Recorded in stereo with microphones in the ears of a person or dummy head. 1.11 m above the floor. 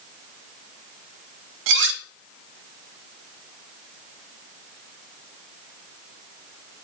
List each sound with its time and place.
1.7 s cutlery clinking: 70° right (ahead or behind), 0.8 m